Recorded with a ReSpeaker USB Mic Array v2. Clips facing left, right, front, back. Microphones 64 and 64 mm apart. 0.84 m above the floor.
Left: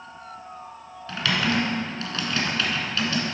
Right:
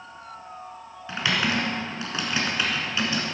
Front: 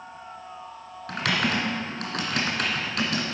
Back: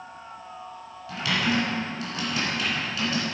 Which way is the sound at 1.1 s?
20° right.